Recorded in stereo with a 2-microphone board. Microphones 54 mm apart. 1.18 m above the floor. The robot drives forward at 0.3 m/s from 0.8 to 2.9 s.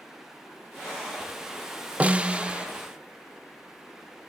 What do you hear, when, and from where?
2.0 s a snare drum: 25° right (ahead or behind), 0.7 m; by 2.7 s 20° right (ahead or behind), 0.9 m